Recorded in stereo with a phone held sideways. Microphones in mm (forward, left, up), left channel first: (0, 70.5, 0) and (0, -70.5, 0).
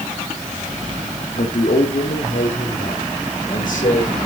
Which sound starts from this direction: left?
A man speaking, at 1.4 s.